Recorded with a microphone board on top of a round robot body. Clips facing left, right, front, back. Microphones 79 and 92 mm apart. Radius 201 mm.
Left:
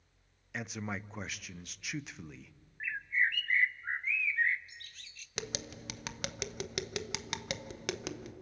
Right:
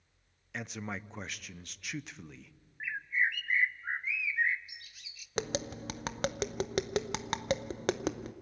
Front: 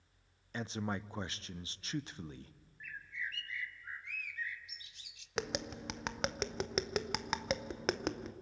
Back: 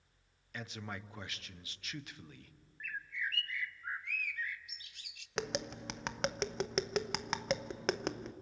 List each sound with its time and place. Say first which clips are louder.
0.5 s a man speaking: even, front 6 dB; 5° left, 0.8 m
2.8 s a bird: even, back 4 dB; 170° right, 0.7 m
5.4 s tapping: right 7 dB, back 1 dB; 90° right, 1.0 m